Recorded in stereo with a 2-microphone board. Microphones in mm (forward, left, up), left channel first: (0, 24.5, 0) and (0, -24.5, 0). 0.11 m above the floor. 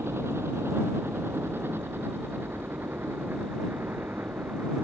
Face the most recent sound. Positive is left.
turn(degrees=-40)  # may be behind; listen again after turning